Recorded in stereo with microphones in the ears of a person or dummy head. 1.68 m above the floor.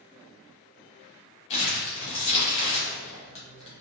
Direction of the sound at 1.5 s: 35° left (ahead or behind).